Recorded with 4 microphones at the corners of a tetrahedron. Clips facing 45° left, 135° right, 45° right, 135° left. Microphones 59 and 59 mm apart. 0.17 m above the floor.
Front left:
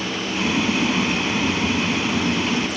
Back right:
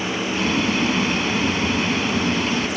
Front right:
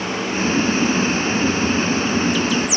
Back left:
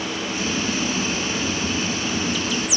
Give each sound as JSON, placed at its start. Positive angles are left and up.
{"t": 0.3, "sound": "boiling", "azimuth_deg": -40}